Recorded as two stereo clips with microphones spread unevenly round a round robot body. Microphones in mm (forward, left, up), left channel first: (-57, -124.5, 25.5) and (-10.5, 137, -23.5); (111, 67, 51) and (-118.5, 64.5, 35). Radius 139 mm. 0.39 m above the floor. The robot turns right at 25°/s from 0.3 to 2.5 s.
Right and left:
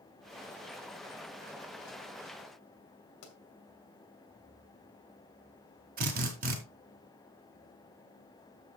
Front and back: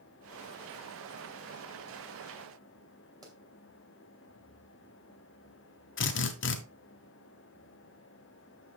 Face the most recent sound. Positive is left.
turn(degrees=30)